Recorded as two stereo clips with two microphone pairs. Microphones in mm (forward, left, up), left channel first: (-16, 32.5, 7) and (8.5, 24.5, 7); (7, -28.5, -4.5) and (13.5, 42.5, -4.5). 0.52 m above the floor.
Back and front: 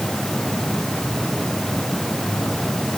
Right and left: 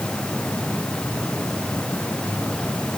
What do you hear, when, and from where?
Only background noise.